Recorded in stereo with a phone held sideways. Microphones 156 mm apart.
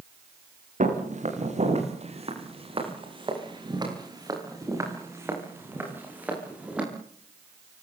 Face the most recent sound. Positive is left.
turn(degrees=-5)  # may be behind; listen again after turning